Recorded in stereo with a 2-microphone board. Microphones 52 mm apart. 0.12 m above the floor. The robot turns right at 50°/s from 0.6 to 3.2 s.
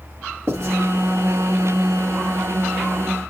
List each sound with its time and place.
0.5 s writing: 55° right (ahead or behind), 3 m; by 0.8 s 50° right (ahead or behind), 3 m